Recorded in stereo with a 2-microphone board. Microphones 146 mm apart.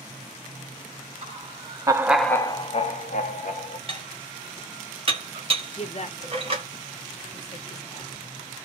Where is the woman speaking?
50° left (ahead or behind), 0.8 m.